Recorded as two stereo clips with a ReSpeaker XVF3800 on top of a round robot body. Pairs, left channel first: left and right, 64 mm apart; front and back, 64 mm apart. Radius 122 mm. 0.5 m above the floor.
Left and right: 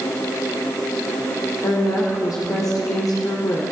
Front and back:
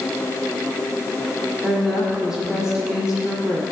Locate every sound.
1.6 s a woman speaking: 105° left, 1.8 m